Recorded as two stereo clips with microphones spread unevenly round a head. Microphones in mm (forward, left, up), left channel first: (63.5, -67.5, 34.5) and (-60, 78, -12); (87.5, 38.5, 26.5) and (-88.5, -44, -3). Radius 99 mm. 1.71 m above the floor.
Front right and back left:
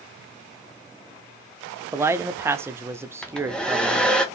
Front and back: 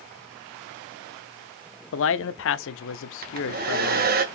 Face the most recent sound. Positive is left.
turn(degrees=-120)